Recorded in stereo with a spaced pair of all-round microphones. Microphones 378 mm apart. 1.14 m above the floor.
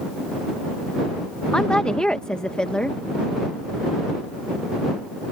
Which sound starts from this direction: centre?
A woman speaking, at 1.5 s.